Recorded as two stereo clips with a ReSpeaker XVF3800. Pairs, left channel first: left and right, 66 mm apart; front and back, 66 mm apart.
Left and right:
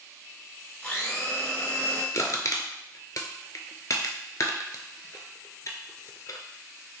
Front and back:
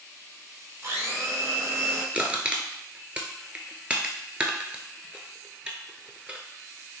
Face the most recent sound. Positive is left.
turn(degrees=110)